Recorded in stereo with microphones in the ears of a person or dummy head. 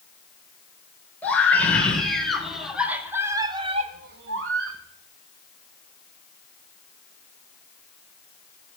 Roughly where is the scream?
Centre.